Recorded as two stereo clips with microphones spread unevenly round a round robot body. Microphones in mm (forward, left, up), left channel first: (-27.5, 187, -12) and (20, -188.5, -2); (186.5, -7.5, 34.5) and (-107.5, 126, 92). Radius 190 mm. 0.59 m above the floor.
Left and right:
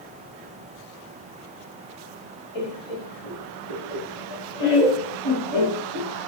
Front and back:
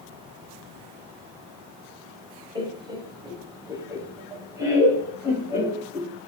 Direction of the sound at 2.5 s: 75° left.